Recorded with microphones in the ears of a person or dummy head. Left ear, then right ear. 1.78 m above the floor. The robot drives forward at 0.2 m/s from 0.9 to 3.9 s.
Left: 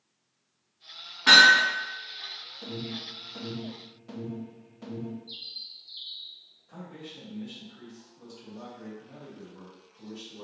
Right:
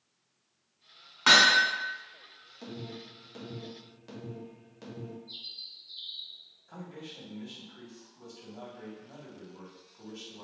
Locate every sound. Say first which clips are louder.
1.3 s hammering: left 4 dB; 60° right (ahead or behind), 1.5 m
2.6 s an alarm: left 4 dB; 60° right (ahead or behind), 1.3 m; by 5.2 s 65° right (ahead or behind), 1.2 m
5.3 s a bird: even; 20° left (ahead or behind), 0.8 m
6.7 s a man speaking: left 1 dB; 45° right (ahead or behind), 1.7 m